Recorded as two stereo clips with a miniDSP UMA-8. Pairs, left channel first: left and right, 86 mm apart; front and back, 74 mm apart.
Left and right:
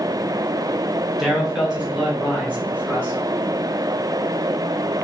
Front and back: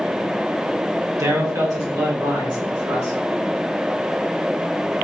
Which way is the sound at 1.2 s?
175° right.